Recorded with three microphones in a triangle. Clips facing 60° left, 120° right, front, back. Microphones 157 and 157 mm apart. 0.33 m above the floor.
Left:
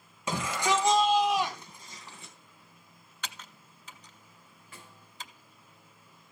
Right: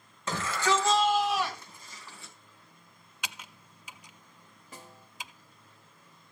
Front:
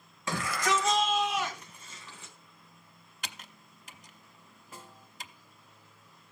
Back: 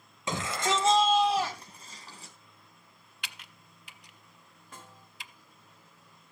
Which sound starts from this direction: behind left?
A shout, at 0.3 s.